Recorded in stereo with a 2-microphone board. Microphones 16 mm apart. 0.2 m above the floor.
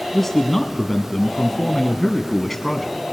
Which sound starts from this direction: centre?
A man speaking, at 0.1 s.